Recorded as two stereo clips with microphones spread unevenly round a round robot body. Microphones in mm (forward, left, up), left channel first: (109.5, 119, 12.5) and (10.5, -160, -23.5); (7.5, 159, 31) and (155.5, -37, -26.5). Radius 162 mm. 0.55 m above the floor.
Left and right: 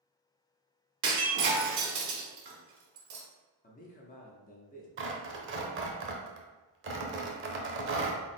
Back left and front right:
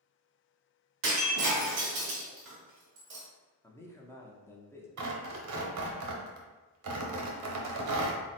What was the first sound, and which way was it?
Breaking glass, 90° right.